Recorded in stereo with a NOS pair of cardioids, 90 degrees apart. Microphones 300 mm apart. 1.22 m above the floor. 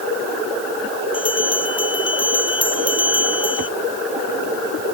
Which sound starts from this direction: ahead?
A bell, at 1.1 s.